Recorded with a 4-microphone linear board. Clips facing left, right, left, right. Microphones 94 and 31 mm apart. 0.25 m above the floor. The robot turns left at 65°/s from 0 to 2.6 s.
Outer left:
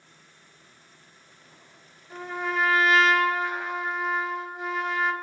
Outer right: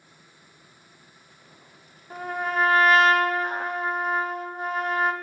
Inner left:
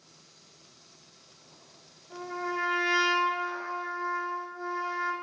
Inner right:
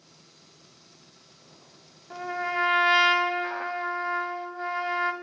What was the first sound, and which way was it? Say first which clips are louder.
A trumpet: outer right 2 dB, inner right 4 dB; 75° right.